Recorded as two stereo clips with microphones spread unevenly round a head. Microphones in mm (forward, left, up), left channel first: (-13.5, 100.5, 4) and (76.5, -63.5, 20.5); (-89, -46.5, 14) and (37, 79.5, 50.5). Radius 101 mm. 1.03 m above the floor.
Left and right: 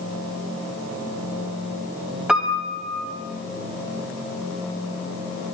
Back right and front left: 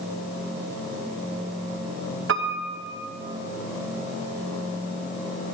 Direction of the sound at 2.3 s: 25° left.